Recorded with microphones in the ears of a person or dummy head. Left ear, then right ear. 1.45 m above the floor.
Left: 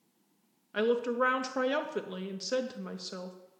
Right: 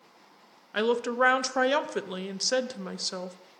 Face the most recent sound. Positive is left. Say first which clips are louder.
# right 3 dB
turn(degrees=-25)  # may be behind; listen again after turning